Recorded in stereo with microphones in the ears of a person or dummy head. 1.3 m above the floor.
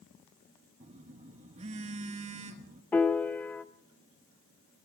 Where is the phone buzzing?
35° right (ahead or behind), 0.9 m.